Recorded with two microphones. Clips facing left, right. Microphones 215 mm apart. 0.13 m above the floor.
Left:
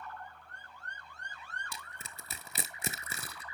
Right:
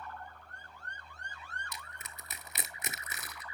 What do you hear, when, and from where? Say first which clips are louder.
1.7 s crushing: even; 30° left (ahead or behind), 0.6 m